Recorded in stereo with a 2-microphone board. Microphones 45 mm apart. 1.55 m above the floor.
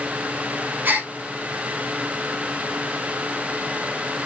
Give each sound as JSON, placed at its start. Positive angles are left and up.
{"t": 0.8, "sound": "a gasp", "side_deg": -45, "distance_m": 1.1}